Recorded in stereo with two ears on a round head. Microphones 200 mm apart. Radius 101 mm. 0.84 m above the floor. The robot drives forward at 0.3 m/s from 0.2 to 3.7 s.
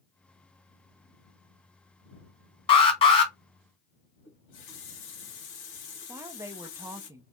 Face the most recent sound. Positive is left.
turn(degrees=-15)  # may be behind; listen again after turning